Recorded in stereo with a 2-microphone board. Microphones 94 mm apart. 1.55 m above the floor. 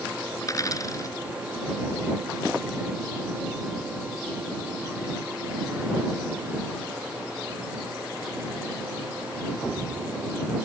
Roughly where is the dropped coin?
Left.